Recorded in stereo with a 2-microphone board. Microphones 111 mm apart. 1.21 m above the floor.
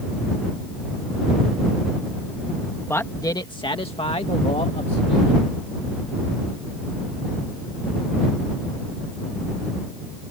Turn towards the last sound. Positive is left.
turn(degrees=70)  # may be behind; listen again after turning